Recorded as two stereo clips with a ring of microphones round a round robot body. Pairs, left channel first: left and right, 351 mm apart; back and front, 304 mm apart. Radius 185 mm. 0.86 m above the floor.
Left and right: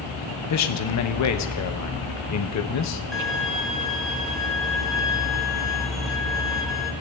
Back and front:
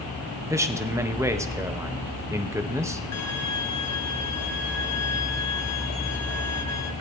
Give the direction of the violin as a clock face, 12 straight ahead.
6 o'clock.